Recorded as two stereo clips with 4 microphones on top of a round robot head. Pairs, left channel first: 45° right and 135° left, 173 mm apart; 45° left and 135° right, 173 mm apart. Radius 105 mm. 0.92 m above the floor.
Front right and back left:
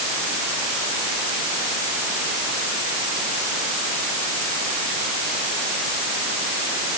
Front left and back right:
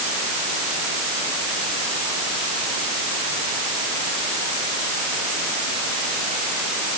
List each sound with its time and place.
Only background noise.